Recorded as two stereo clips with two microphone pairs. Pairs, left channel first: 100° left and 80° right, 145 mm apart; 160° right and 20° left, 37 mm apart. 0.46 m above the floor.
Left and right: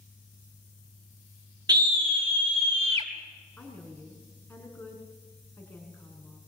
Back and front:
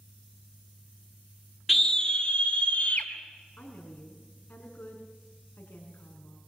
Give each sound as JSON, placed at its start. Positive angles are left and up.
{"t": 1.7, "sound": "a scream", "azimuth_deg": -70, "distance_m": 0.9}
{"t": 3.6, "sound": "a woman speaking", "azimuth_deg": 180, "distance_m": 4.5}